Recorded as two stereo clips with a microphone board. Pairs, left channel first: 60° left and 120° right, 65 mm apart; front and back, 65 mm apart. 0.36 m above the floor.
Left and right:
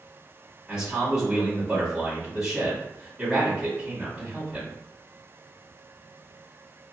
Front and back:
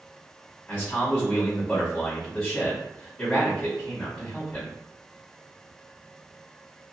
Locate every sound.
0.7 s a man speaking: 60° right, 1.6 m